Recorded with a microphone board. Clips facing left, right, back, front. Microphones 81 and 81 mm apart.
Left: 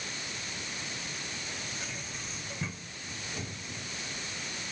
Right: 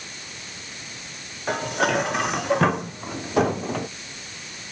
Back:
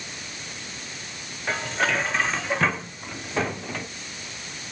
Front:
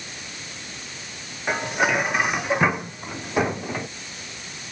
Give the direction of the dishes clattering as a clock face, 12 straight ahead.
2 o'clock.